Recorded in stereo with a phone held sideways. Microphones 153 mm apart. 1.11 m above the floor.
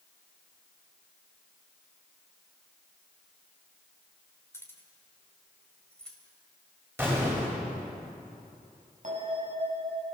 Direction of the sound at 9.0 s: 55° right (ahead or behind).